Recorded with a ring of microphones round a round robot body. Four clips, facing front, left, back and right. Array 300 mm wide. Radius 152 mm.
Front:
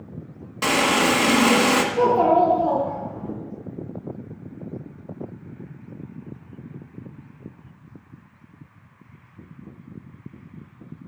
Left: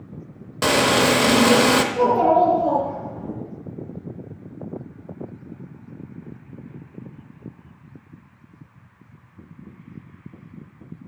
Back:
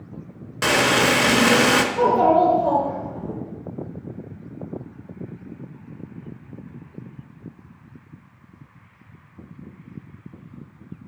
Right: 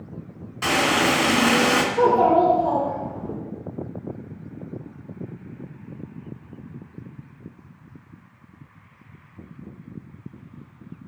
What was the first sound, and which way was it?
Frying, 110° left.